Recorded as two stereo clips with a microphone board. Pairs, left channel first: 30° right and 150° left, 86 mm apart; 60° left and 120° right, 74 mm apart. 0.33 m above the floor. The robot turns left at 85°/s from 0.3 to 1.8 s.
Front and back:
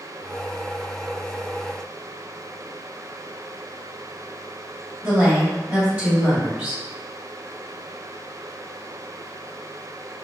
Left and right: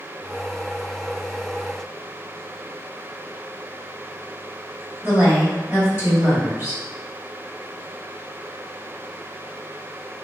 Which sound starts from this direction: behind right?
A woman speaking, at 5.0 s.